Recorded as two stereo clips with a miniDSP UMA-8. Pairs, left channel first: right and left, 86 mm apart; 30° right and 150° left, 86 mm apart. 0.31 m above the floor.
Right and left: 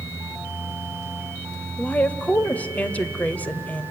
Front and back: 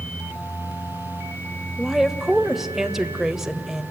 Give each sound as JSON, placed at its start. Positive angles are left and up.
{"t": 1.8, "sound": "a woman speaking", "azimuth_deg": -130, "distance_m": 0.9}